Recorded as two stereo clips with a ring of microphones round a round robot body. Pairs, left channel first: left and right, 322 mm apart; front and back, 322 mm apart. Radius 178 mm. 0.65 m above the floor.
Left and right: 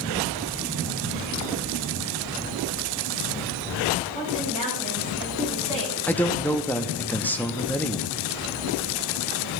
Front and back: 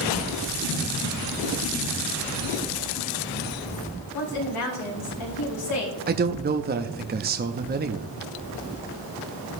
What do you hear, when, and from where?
4.1 s a woman speaking: 20° left, 4.5 m
6.1 s a man speaking: 170° left, 0.7 m